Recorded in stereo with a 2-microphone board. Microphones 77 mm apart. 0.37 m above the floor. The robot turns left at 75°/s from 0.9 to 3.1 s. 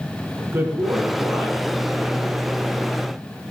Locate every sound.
0.4 s a man speaking: 140° right, 4 m; by 2.4 s 105° left, 4 m